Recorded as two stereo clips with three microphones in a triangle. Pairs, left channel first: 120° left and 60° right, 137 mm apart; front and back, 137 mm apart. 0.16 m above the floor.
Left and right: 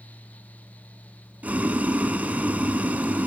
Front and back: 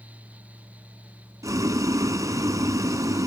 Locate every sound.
1.4 s boiling: 135° right, 0.8 m